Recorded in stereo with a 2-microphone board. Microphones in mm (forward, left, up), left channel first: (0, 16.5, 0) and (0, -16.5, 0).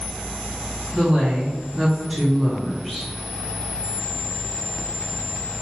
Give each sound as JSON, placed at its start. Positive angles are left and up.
{"t": 0.9, "sound": "a woman speaking", "side_deg": -45, "distance_m": 1.0}